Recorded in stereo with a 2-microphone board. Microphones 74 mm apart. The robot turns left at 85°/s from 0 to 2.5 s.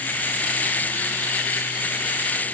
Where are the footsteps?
No footsteps in this recording.